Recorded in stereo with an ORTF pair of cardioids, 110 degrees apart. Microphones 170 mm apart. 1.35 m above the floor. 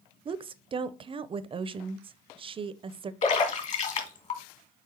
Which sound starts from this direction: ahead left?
A splash, at 3.2 s.